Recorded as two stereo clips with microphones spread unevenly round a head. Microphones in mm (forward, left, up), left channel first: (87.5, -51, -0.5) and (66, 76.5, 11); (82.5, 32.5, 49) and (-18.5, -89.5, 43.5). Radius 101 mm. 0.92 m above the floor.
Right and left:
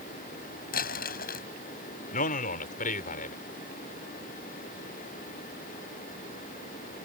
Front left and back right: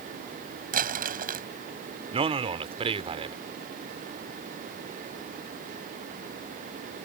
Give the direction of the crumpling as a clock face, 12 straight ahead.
3 o'clock.